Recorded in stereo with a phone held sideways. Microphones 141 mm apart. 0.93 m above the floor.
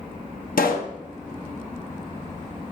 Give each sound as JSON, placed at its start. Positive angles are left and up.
{"t": 0.6, "sound": "a pop", "side_deg": 85, "distance_m": 0.8}